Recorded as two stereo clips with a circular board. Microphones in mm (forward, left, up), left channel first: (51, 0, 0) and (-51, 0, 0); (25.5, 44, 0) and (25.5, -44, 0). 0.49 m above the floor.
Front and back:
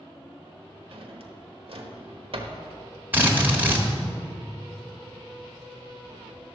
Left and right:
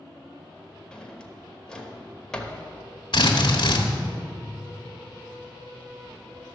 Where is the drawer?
170° left, 1.1 m.